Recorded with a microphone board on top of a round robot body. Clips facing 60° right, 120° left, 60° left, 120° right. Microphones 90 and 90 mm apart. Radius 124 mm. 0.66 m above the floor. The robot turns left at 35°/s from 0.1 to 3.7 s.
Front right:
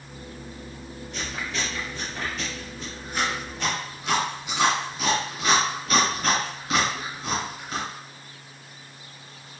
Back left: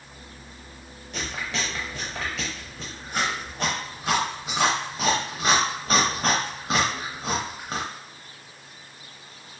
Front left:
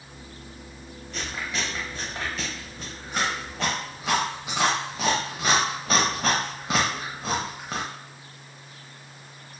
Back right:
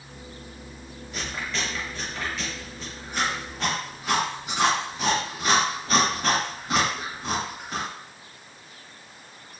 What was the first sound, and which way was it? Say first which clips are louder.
Chewing: back left 1 dB, even; 155° left.